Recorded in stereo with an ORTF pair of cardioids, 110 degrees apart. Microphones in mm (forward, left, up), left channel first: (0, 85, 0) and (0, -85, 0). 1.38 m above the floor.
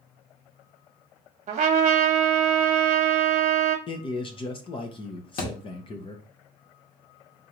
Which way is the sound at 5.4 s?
60° left.